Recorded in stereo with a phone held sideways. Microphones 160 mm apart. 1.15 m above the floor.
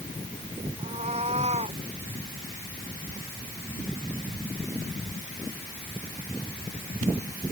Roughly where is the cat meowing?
Right.